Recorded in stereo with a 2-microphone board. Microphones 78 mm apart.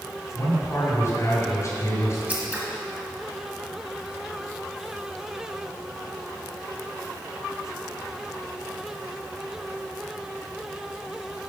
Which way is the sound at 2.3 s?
20° right (ahead or behind).